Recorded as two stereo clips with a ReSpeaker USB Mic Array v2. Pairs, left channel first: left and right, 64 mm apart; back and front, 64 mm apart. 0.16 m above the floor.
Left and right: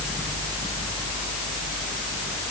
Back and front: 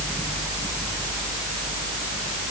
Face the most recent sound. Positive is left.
No sound to turn to.